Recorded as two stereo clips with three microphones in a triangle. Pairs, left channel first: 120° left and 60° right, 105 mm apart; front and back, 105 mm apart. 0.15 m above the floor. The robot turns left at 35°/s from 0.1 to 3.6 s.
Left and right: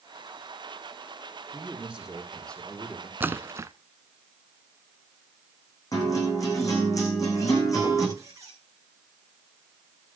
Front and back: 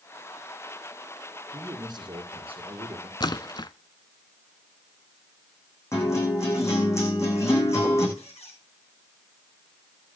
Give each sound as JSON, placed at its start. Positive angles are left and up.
{"t": 1.5, "sound": "a man speaking", "azimuth_deg": -125, "distance_m": 3.0}
{"t": 3.2, "sound": "a splash", "azimuth_deg": 5, "distance_m": 0.7}
{"t": 5.9, "sound": "a guitar", "azimuth_deg": 60, "distance_m": 9.5}
{"t": 8.2, "sound": "a squeak", "azimuth_deg": 0, "distance_m": 4.0}